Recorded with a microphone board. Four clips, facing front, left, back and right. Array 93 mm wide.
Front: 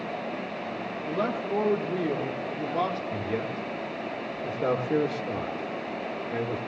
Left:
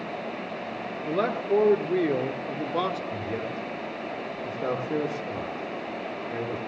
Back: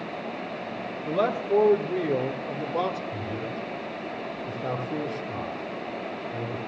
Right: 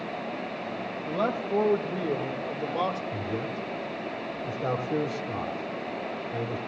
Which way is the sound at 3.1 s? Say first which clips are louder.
Even, front 2 dB; 30° left.